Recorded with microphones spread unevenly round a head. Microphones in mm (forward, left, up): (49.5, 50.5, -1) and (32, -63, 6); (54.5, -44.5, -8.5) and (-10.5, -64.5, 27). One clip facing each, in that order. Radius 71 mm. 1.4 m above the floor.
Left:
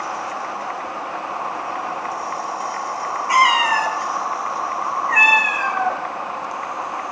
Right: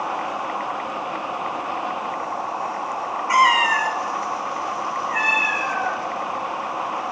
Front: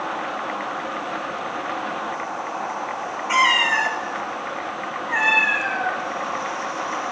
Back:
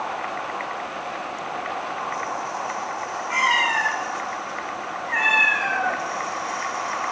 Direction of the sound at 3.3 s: 15° left.